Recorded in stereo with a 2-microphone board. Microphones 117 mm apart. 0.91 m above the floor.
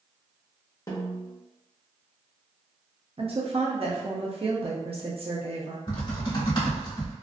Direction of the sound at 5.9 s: 40° left (ahead or behind).